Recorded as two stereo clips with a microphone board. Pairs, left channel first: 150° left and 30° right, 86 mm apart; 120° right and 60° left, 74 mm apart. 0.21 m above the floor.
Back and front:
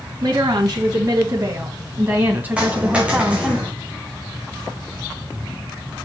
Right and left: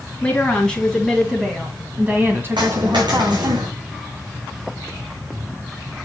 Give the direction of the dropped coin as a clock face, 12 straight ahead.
10 o'clock.